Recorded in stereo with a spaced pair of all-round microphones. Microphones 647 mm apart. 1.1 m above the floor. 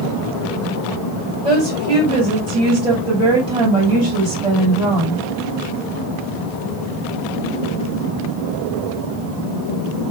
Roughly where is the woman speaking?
Right.